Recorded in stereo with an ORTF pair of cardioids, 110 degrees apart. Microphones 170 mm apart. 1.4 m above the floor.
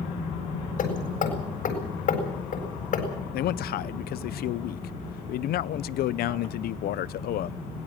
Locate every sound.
0.8 s hammering: 55° left, 7.5 m
3.3 s a man speaking: 65° left, 0.7 m